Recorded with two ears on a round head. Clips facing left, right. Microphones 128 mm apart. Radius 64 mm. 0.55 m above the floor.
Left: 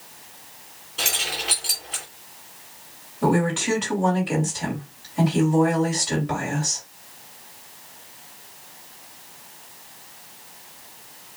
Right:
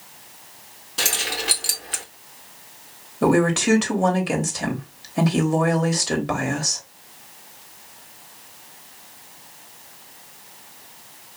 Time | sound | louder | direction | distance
1.0 | keys jangling | right 2 dB | 70° right (ahead or behind) | 2.5 m
3.2 | a woman speaking | right 3 dB | 70° right (ahead or behind) | 3 m